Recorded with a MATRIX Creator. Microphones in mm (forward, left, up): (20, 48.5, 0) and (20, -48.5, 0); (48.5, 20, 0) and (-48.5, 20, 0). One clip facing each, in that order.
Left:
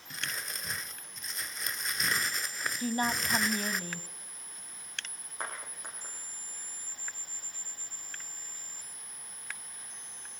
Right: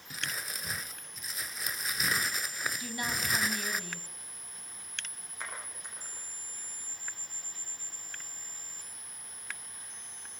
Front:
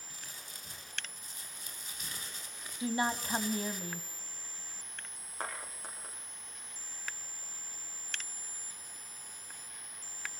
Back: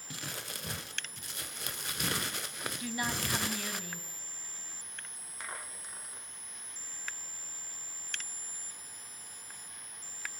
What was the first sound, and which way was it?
Crumpling, straight behind.